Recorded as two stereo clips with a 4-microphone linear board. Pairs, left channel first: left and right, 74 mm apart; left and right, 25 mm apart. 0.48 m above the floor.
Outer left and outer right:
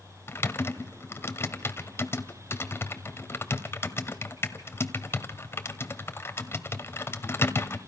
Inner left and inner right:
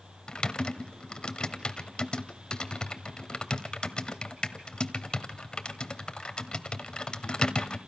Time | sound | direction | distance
0.3 | typing on a keyboard | 35° left (ahead or behind) | 1.2 m